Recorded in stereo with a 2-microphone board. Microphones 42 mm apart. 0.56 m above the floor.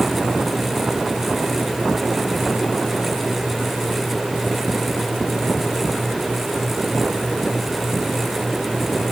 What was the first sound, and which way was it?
Only background noise.